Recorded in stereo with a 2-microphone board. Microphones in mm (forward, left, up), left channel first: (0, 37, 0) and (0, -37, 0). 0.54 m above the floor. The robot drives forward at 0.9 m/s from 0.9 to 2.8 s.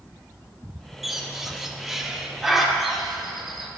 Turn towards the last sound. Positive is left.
turn(degrees=0)  # may be behind; listen again after turning